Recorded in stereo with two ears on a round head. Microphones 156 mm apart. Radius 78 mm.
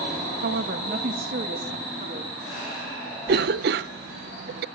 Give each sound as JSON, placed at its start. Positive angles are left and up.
{"t": 0.4, "sound": "a woman speaking", "side_deg": -65, "distance_m": 1.3}
{"t": 3.3, "sound": "a cough", "side_deg": -60, "distance_m": 0.6}